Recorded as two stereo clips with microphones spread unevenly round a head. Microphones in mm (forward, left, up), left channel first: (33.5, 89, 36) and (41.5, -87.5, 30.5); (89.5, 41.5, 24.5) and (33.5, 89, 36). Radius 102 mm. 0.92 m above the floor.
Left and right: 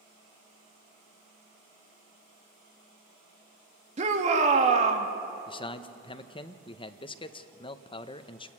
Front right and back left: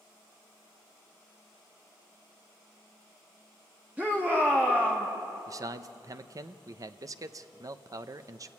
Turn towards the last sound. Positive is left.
turn(degrees=140)